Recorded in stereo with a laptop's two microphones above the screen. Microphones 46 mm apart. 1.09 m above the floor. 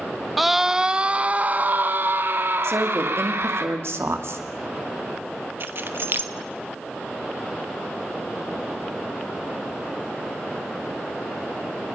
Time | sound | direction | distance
0.4 | a scream | centre (ahead or behind) | 1.4 m
2.6 | a woman speaking | 65° right (ahead or behind) | 2.0 m
5.6 | keys jangling | 50° right (ahead or behind) | 1.1 m